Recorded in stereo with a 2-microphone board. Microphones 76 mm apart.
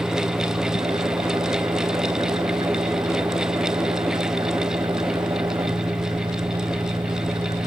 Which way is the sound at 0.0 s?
85° right.